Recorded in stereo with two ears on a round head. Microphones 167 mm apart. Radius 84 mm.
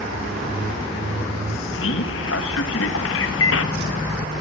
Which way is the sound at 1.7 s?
75° left (ahead or behind).